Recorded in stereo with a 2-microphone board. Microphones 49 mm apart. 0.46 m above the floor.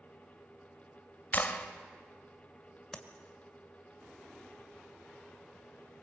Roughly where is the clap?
Left.